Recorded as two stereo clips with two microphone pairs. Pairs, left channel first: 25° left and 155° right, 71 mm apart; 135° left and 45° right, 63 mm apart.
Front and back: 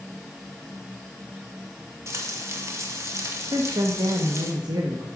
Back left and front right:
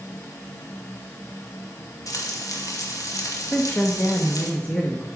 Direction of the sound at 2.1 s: 160° left.